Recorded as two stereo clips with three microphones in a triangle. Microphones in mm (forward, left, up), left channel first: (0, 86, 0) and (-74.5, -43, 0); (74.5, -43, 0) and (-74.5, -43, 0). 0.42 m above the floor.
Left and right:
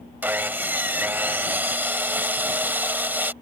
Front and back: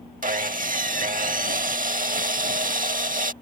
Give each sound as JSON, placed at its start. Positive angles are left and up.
{"t": 0.2, "sound": "sawing", "azimuth_deg": 160}